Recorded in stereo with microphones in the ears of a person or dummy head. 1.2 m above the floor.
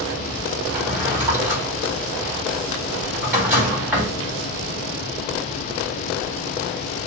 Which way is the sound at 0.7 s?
10° right (ahead or behind).